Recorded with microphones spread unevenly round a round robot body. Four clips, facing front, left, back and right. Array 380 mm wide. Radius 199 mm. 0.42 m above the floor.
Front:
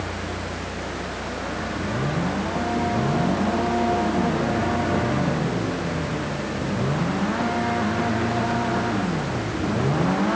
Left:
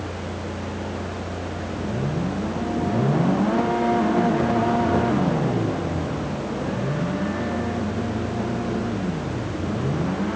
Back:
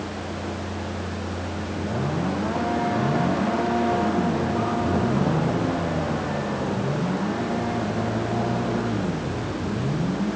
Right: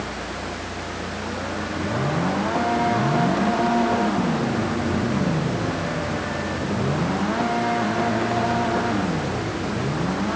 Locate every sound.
Only background noise.